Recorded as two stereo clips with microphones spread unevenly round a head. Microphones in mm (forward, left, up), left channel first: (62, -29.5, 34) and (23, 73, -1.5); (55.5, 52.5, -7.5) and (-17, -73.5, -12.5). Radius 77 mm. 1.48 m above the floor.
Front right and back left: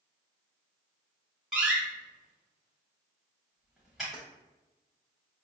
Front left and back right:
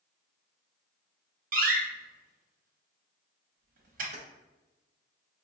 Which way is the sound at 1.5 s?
150° right.